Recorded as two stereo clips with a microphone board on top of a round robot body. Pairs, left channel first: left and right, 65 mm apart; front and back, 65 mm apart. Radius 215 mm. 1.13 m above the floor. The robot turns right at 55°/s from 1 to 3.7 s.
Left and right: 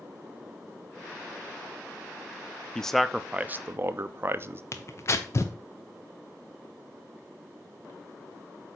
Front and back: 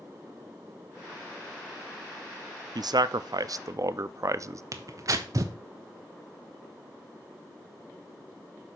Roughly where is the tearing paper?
Behind left.